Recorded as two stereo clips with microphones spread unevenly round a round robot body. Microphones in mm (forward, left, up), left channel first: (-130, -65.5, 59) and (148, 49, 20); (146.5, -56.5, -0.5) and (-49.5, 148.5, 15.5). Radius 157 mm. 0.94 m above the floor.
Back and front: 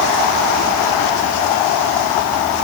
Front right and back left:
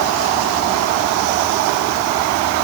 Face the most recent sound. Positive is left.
No sound to turn to.